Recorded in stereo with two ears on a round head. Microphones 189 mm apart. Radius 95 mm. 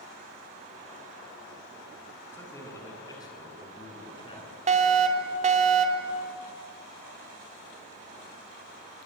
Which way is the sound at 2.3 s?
15° left (ahead or behind).